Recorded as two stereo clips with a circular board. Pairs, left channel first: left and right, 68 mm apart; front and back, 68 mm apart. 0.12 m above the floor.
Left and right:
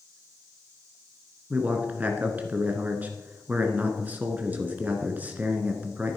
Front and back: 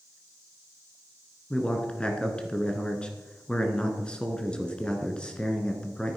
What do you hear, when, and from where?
1.5 s a man speaking: 55° right, 1.8 m